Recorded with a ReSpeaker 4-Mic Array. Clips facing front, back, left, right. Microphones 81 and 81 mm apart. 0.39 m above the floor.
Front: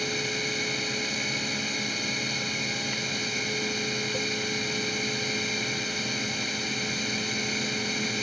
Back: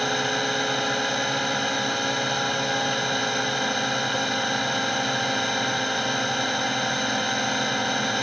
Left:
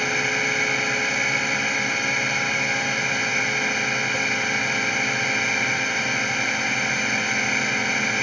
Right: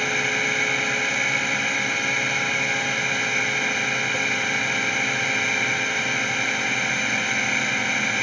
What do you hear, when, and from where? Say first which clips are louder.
0.0 s a drone: back 7 dB, even; 175° left